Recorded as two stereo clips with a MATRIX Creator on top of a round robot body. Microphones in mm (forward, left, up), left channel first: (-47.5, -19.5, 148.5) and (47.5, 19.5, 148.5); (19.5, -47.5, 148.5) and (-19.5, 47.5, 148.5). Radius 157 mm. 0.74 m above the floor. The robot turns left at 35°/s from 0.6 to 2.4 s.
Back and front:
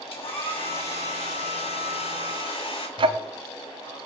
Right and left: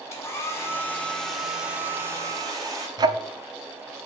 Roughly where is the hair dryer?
Behind right.